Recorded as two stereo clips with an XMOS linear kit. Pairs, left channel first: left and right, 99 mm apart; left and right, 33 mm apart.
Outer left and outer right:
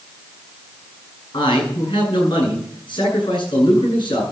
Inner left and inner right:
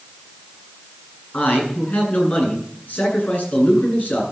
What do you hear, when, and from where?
1.3 s a man speaking: 55° left (ahead or behind), 9 m